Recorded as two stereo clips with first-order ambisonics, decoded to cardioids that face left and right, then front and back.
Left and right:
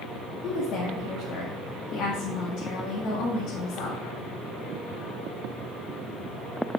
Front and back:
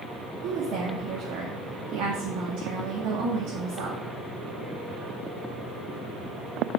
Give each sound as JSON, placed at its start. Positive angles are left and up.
{"t": 0.4, "sound": "a woman speaking", "azimuth_deg": 140, "distance_m": 1.9}